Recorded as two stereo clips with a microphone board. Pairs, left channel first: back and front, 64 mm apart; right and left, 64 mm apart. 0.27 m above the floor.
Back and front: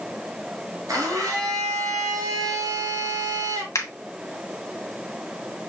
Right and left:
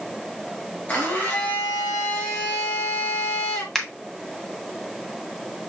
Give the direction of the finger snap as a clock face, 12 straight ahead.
6 o'clock.